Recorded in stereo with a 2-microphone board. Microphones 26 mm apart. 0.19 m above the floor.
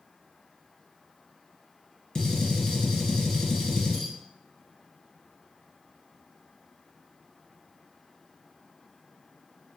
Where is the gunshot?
20° left (ahead or behind), 1.3 m.